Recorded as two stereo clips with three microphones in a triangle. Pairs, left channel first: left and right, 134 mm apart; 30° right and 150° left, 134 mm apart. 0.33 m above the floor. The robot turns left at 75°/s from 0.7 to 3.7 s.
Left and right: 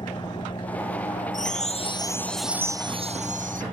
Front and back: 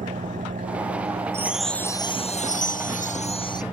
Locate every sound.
0.0 s an engine running: 145° left; by 3.7 s 80° right
1.3 s a chime: 80° left; by 3.6 s 90° right